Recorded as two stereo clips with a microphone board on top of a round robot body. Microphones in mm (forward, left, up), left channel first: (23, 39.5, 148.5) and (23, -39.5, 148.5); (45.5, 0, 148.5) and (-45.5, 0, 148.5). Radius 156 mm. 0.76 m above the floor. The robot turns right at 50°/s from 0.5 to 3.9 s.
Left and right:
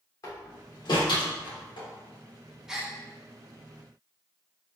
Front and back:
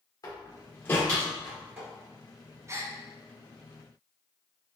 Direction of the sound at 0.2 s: 45° left.